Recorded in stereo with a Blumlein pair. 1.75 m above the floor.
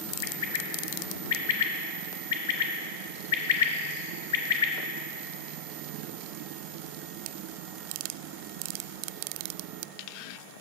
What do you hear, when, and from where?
0.2 s a bird: 55° left, 0.7 m